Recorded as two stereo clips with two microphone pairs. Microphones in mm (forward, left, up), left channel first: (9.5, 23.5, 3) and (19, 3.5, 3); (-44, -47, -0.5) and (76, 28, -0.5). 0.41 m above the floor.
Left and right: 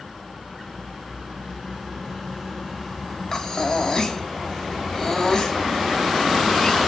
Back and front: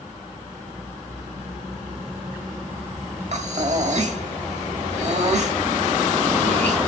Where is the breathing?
55° left, 1.1 m.